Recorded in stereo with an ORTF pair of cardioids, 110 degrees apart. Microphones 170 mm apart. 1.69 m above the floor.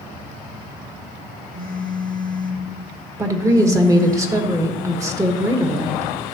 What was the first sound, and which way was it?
A phone buzzing, 50° right.